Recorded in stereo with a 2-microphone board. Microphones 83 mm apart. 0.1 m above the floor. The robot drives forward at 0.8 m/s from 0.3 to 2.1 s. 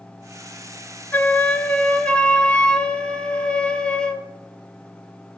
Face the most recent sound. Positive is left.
turn(degrees=15)  # may be behind; listen again after turning